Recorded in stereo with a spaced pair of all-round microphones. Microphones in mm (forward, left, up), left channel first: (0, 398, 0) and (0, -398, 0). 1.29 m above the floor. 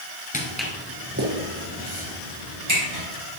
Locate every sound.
0.3 s footsteps: 10° left (ahead or behind), 1.3 m; by 3.0 s 35° right (ahead or behind), 3.5 m